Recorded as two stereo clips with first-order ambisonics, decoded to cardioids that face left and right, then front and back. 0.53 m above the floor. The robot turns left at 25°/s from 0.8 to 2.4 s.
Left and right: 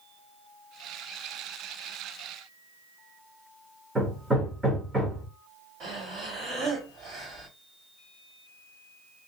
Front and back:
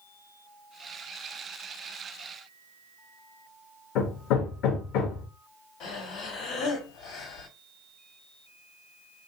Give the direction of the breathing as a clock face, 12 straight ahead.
1 o'clock.